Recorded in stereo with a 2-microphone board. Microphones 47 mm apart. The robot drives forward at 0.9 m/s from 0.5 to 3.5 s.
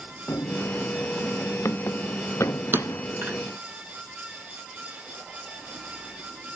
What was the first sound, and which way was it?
Running footsteps, 80° left.